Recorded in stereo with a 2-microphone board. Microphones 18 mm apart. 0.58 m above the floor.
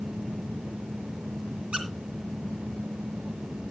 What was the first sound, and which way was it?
A squeak, 85° right.